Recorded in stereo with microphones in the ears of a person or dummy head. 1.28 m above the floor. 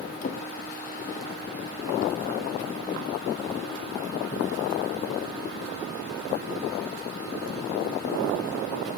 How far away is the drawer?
About 0.9 m.